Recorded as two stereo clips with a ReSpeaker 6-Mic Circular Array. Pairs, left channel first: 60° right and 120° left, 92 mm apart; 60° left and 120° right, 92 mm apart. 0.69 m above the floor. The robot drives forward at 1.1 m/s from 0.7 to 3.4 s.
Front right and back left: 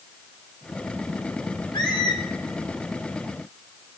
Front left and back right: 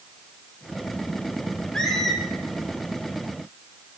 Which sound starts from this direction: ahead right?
A squeak, at 1.7 s.